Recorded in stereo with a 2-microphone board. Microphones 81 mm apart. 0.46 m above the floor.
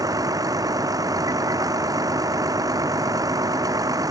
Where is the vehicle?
50° right (ahead or behind).